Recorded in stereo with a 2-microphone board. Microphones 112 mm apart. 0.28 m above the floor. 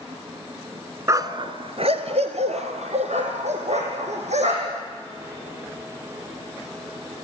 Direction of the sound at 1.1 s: 25° right (ahead or behind).